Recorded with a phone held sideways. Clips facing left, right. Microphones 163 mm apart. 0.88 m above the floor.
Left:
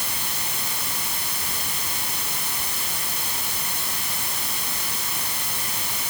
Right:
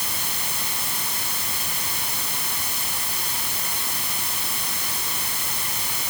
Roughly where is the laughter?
No laughter in this recording.